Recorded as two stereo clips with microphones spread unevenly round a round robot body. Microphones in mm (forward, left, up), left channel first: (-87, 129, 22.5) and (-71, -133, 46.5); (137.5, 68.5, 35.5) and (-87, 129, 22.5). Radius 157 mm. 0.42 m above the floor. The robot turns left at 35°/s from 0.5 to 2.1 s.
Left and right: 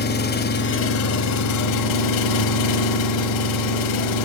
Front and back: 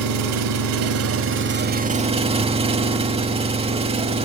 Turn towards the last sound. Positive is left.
turn(degrees=95)